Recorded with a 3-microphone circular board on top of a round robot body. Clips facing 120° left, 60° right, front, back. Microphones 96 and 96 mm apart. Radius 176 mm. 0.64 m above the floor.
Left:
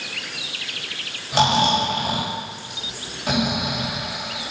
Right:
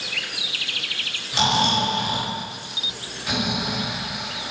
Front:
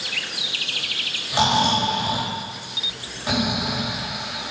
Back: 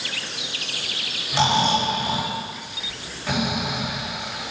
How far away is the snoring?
About 4 m.